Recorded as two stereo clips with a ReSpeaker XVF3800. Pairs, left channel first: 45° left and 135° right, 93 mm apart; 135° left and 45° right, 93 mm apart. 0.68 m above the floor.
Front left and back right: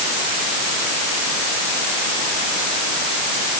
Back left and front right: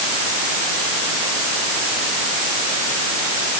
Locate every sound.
Only background noise.